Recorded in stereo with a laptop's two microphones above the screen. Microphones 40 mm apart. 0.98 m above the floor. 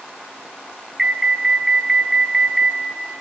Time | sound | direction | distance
1.0 | an alarm | 5° right (ahead or behind) | 1.0 m